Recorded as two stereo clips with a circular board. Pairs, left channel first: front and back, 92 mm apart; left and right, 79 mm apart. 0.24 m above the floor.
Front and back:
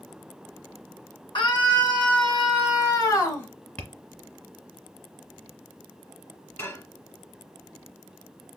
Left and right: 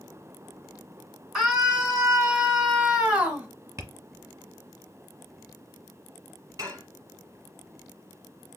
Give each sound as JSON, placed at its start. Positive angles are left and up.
{"t": 1.4, "sound": "a scream", "azimuth_deg": -5, "distance_m": 2.0}
{"t": 3.8, "sound": "tapping", "azimuth_deg": -65, "distance_m": 1.0}
{"t": 6.6, "sound": "dishes clattering", "azimuth_deg": -50, "distance_m": 1.2}